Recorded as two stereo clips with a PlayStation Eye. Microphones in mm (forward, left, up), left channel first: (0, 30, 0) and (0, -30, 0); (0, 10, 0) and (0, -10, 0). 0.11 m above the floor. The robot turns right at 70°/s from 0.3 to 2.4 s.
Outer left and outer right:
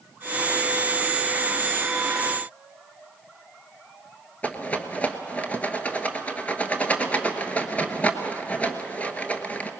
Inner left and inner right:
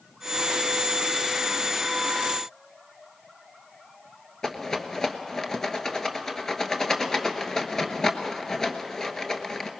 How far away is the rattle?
About 1.2 m.